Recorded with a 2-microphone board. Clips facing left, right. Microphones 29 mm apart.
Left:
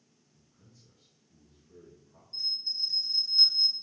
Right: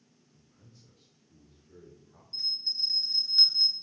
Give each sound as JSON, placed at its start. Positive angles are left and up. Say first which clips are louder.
{"t": 0.3, "sound": "a man speaking", "louder": "right 2 dB", "side_deg": -55, "distance_m": 2.0}
{"t": 2.3, "sound": "a bell", "louder": "right 1 dB", "side_deg": -40, "distance_m": 1.1}